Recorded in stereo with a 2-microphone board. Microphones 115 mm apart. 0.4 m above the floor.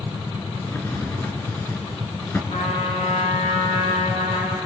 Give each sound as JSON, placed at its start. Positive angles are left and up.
{"t": 0.6, "sound": "a drawer", "side_deg": 20, "distance_m": 2.5}
{"t": 2.5, "sound": "a trumpet", "side_deg": 70, "distance_m": 4.0}